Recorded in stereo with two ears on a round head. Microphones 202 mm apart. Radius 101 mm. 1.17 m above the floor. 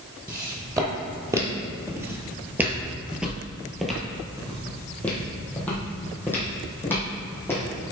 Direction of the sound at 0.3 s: 15° right (ahead or behind).